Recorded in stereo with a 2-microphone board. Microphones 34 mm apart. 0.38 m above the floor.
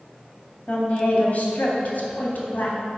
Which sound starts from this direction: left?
A woman speaking, at 0.7 s.